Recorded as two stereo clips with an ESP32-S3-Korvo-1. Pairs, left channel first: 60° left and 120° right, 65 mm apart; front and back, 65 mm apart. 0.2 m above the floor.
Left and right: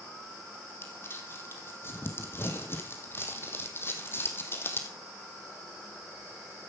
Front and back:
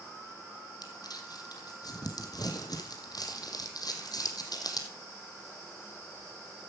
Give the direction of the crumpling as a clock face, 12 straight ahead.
12 o'clock.